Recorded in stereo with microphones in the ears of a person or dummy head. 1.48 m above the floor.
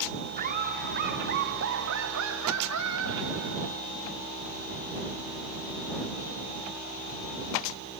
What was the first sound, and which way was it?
Laughter, 50° right (ahead or behind).